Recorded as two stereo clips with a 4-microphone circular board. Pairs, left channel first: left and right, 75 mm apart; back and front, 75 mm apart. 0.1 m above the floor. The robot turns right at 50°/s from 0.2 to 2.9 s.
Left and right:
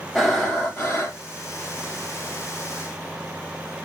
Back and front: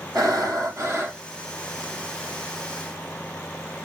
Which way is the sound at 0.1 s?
Straight ahead.